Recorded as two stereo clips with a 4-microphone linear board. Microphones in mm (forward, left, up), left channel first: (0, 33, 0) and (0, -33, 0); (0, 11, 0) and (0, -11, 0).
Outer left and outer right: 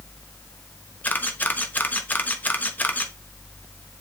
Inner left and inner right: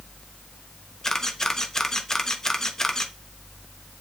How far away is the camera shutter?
About 1.0 m.